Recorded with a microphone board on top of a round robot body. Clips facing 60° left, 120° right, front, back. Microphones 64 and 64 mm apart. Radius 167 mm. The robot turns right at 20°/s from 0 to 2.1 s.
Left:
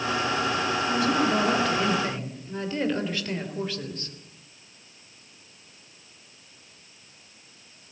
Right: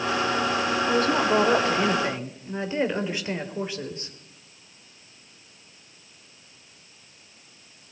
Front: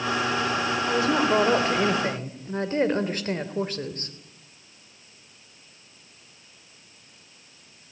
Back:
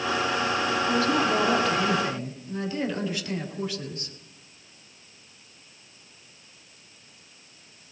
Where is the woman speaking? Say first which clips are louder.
Right 2 dB, front 2 dB; 75° right, 3.5 m; by 4.1 s 50° right, 3.5 m.